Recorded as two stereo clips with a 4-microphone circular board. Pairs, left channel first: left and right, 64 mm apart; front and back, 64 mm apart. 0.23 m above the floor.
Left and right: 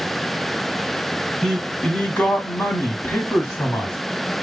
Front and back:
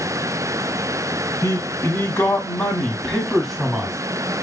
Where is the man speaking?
15° left, 1.8 m; by 4.0 s 110° left, 1.5 m.